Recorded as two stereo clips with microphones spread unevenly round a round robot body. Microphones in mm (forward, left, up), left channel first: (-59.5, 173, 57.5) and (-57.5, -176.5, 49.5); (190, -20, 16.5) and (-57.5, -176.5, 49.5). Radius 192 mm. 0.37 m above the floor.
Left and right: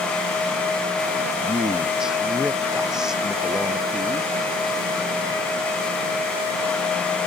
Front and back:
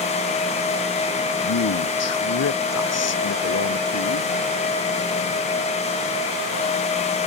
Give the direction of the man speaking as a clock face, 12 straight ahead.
12 o'clock.